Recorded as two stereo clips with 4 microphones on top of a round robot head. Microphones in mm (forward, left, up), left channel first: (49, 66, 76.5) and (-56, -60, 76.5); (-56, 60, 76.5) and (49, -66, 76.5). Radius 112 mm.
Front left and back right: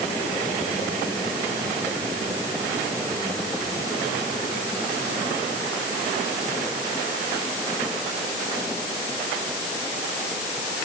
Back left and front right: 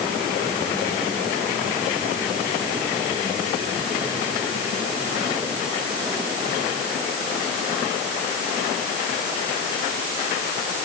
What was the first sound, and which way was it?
Only background noise.